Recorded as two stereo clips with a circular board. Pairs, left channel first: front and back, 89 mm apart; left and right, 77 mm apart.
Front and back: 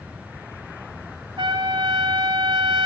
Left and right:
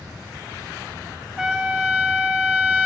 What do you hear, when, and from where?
1.4 s a trumpet: 165° right, 2.5 m